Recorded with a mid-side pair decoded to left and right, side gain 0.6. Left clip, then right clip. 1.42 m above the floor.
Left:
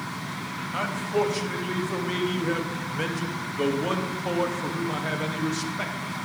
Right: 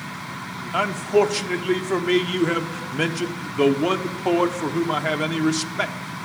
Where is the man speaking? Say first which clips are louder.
Right 7 dB; 40° right, 0.9 m.